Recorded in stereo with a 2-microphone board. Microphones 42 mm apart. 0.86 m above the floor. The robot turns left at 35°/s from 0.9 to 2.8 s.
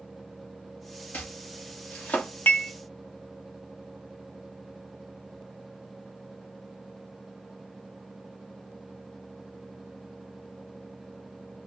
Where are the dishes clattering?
50° left (ahead or behind), 0.6 m; by 2.7 s 55° left (ahead or behind), 0.6 m.